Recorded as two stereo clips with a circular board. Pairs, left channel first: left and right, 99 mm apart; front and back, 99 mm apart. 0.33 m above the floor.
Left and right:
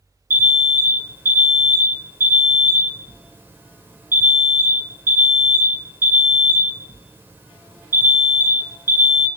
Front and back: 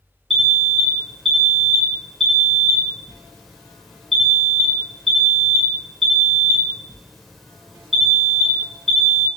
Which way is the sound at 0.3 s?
85° right.